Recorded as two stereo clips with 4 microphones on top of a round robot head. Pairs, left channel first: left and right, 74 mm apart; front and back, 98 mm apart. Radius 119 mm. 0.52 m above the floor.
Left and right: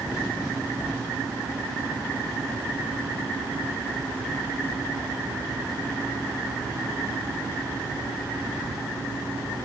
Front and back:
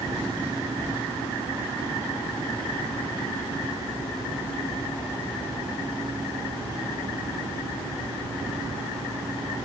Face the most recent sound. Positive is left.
No sound to turn to.